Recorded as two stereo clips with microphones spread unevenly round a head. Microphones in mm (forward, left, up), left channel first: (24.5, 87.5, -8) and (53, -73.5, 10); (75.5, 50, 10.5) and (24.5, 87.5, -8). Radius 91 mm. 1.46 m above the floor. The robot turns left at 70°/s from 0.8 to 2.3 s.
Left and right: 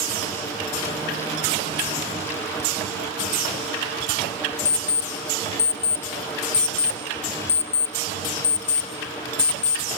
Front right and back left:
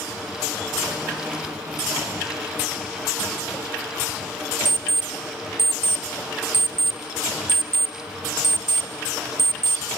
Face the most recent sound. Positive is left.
turn(degrees=95)